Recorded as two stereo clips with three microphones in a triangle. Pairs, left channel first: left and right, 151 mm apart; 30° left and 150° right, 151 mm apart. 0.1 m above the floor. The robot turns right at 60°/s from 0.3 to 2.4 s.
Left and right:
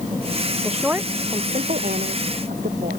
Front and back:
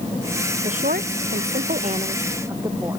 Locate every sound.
0.6 s a woman speaking: 175° left; by 3.0 s 80° right